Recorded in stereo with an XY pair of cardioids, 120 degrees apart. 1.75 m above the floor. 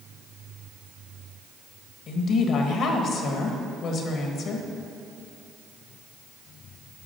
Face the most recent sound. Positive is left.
turn(degrees=60)